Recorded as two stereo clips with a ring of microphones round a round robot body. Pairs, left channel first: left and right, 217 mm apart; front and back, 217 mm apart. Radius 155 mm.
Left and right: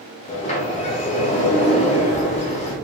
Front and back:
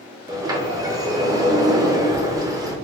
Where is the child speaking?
I don't hear a child speaking.